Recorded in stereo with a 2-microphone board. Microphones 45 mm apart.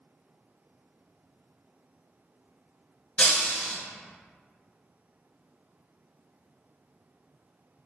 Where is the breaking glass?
30° left (ahead or behind), 1.5 m.